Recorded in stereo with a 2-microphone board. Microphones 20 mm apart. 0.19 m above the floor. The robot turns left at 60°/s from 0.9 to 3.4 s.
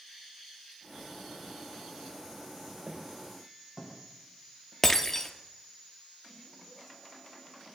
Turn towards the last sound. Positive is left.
turn(degrees=25)  # may be behind; listen again after turning